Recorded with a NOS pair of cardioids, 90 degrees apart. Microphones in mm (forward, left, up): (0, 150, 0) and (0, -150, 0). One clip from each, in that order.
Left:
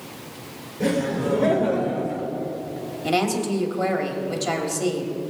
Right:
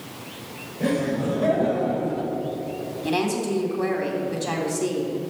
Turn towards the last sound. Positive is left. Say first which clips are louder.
# left 2 dB
turn(degrees=45)